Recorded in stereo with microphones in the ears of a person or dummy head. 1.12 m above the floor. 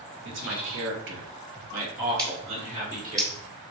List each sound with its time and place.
0.2 s a man speaking: 55° right (ahead or behind), 0.8 m; by 3.2 s 30° right (ahead or behind), 1.5 m
2.2 s scissors: 25° right (ahead or behind), 1.6 m